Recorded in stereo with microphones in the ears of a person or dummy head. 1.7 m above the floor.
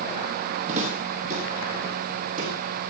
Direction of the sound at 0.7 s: 45° right (ahead or behind).